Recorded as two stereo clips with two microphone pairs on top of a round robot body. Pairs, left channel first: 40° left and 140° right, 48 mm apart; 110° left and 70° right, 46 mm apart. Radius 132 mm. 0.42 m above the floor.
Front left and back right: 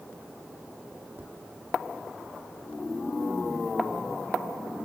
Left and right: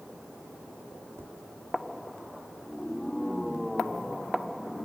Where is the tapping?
100° right, 1.7 m.